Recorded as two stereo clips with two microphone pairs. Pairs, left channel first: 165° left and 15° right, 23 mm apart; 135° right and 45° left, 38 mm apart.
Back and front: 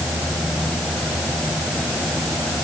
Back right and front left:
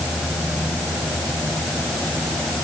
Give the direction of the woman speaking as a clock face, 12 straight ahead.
I don't hear a woman speaking.